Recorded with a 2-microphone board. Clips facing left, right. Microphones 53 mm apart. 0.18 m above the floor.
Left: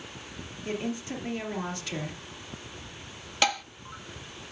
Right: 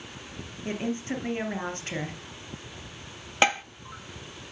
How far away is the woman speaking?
About 3 m.